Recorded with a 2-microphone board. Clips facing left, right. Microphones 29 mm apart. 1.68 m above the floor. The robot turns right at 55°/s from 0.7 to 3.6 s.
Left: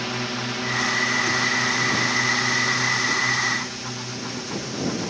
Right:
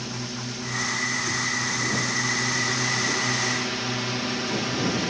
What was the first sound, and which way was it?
A drone, 60° left.